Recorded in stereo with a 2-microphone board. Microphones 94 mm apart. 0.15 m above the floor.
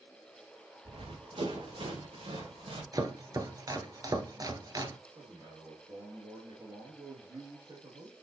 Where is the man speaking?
50° right (ahead or behind), 3 m.